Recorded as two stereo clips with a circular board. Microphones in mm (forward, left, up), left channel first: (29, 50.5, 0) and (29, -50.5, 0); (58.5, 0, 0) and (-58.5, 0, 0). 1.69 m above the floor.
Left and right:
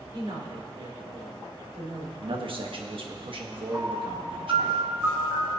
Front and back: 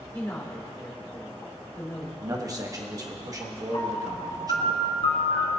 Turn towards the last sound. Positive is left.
turn(degrees=-30)